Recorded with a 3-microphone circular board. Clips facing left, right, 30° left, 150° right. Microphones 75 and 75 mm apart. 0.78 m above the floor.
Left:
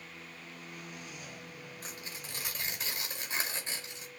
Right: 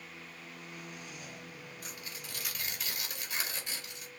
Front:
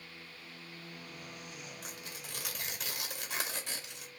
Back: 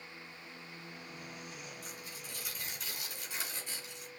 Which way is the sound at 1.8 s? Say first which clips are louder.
Left 1 dB, front 1 dB; 30° left.